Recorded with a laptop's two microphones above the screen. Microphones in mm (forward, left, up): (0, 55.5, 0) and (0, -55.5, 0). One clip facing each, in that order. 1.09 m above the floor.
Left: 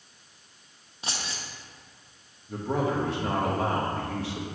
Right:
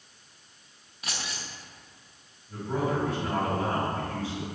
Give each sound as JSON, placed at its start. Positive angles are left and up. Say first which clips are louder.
{"t": 1.0, "sound": "keys jangling", "louder": "left 1 dB", "side_deg": 30, "distance_m": 0.6}
{"t": 2.5, "sound": "a man speaking", "louder": "left 2 dB", "side_deg": 70, "distance_m": 1.5}